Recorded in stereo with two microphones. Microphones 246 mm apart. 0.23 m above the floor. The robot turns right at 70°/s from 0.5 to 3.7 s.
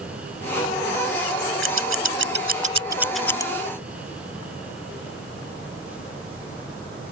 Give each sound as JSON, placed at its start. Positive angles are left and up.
{"t": 1.6, "sound": "scissors", "side_deg": -60}